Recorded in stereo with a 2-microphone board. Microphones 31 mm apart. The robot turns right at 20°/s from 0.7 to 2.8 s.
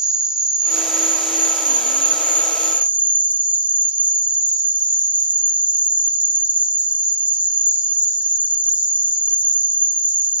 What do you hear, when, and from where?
0.0 s an insect: 150° right, 1.0 m; by 10.4 s 110° right, 1.0 m